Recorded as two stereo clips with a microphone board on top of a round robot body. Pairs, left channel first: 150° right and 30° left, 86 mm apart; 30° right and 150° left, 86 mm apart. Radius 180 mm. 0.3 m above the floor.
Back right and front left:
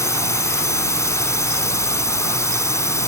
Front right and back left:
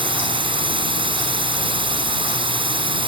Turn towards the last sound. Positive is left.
turn(degrees=155)